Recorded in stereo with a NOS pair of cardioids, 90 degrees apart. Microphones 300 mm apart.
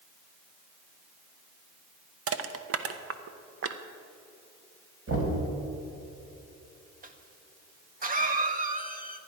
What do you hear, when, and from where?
2.3 s crushing: 50° right, 1.0 m
5.1 s knocking: 50° right, 4 m
7.0 s a cough: 30° right, 1.6 m